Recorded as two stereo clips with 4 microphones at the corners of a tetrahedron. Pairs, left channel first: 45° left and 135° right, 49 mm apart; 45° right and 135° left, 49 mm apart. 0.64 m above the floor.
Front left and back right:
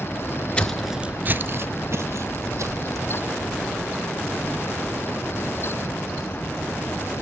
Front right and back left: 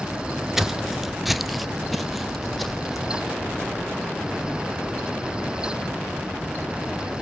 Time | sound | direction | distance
0.6 | footsteps | 60° left | 0.6 m